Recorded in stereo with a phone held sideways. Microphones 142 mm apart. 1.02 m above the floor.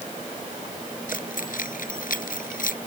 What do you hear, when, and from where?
1.1 s keys jangling: 75° left (ahead or behind)